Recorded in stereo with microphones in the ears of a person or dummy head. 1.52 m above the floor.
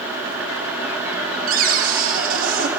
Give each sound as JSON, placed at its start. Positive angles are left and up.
{"t": 1.5, "sound": "a cupboard door", "side_deg": -55, "distance_m": 0.9}